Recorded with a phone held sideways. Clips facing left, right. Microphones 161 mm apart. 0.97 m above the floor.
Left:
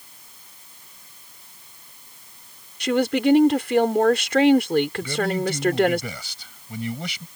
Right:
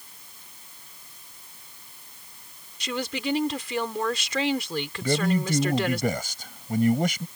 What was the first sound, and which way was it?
A woman speaking, 75° left (ahead or behind).